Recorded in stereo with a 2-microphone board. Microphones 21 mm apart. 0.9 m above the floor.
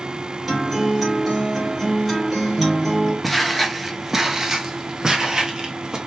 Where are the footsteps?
Centre (ahead or behind), 0.9 m; by 6.0 s 40° right (ahead or behind), 1.5 m.